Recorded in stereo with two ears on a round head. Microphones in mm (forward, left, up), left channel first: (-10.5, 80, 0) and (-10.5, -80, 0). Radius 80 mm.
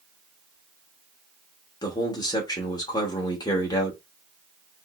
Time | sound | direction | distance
1.8 | a man speaking | 25° left (ahead or behind) | 0.9 m